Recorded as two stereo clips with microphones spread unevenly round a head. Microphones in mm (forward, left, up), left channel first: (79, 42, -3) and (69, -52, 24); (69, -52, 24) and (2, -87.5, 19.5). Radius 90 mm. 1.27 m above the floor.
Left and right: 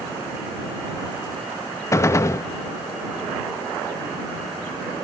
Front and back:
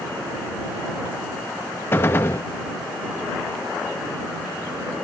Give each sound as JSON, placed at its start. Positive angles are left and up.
{"t": 1.9, "sound": "a gunshot", "azimuth_deg": 25}